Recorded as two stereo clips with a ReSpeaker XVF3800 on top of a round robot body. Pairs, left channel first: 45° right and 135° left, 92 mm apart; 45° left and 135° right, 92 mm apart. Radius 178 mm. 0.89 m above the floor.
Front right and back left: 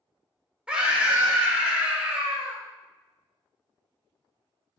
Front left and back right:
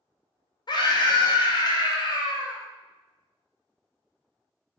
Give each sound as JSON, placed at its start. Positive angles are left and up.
{"t": 0.7, "sound": "a scream", "azimuth_deg": 55, "distance_m": 1.2}